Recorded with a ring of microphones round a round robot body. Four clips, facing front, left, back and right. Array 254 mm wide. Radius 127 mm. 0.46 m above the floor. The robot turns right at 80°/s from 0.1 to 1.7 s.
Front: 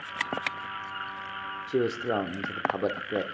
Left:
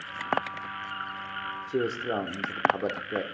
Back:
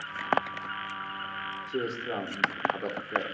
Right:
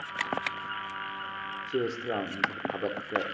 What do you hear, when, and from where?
1.7 s a man speaking: 5° left, 0.8 m